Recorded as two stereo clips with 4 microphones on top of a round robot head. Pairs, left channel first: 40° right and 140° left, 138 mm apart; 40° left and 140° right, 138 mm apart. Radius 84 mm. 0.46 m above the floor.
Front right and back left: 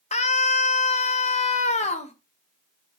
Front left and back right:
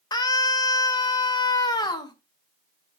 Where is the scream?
15° right, 1.9 m.